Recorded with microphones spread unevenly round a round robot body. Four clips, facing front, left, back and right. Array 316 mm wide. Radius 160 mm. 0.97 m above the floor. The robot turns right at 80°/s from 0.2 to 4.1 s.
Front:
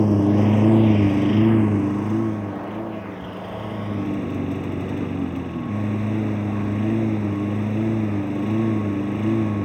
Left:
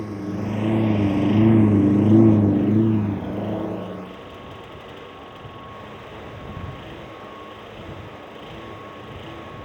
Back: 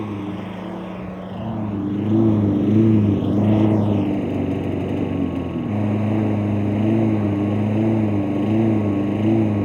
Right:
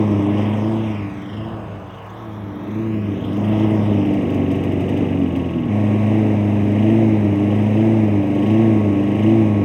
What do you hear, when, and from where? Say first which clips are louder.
0.0 s a lawn mower: right 11 dB, front 10 dB; 50° right; by 9.7 s 100° right